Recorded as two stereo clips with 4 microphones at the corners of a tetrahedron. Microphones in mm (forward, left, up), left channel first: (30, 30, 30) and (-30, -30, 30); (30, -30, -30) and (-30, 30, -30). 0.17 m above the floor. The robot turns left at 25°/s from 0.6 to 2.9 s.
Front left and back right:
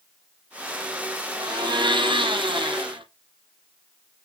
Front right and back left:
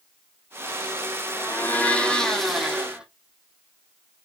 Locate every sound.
1.4 s a blender: 105° right, 1.3 m; by 3.0 s 145° right, 1.3 m